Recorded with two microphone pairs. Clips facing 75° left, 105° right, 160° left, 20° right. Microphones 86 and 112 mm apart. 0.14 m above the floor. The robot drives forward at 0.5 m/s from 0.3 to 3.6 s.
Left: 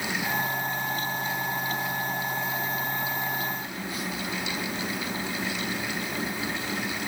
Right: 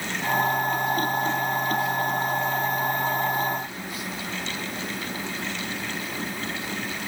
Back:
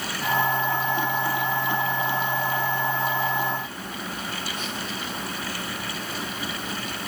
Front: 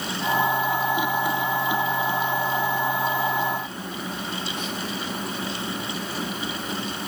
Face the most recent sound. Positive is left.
No sound to turn to.